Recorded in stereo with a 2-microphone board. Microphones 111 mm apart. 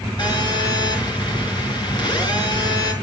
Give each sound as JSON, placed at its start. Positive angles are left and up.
{"t": 0.2, "sound": "a phone buzzing", "side_deg": 45, "distance_m": 5.5}